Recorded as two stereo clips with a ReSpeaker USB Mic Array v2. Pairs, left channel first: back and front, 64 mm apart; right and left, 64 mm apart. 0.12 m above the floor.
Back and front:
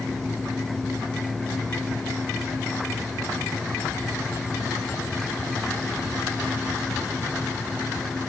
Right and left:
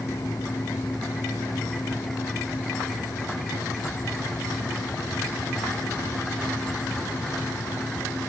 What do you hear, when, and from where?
Only background noise.